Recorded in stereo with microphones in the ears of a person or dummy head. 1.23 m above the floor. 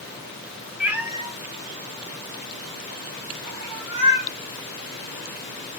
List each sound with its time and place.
0.8 s a cat meowing: 5° right (ahead or behind), 0.7 m; by 4.3 s 65° right (ahead or behind), 2.0 m